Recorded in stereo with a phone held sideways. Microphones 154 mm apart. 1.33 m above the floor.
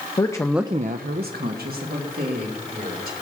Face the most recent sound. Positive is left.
turn(degrees=-70)  # may be behind; listen again after turning